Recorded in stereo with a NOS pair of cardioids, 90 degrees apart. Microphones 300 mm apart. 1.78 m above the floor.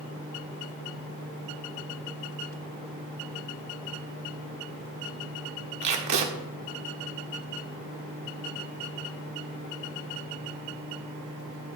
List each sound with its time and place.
5.8 s tape being pulled: 65° right, 1.6 m